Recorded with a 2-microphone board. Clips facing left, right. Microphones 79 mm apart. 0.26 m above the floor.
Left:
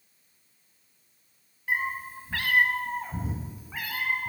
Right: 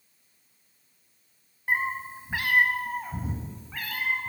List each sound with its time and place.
1.7 s a cat meowing: 35° right (ahead or behind), 0.9 m; by 4.3 s 15° left (ahead or behind), 1.7 m